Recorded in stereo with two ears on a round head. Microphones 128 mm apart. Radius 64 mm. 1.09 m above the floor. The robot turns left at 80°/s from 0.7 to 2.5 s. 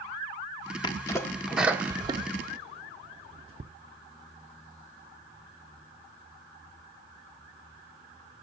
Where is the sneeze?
30° left (ahead or behind), 0.6 m; by 3.6 s 40° right (ahead or behind), 0.6 m.